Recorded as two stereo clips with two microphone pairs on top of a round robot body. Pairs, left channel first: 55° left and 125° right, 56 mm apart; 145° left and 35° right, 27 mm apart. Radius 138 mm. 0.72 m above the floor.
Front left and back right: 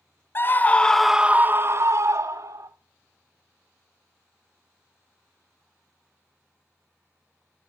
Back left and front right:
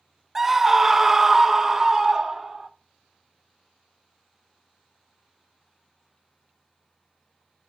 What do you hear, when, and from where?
0.3 s a scream: 30° left, 0.8 m; by 2.7 s 115° right, 1.2 m